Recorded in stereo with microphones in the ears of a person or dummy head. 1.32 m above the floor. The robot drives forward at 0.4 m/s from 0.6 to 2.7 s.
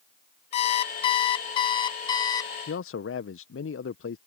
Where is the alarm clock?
40° left (ahead or behind); by 2.5 s 25° left (ahead or behind).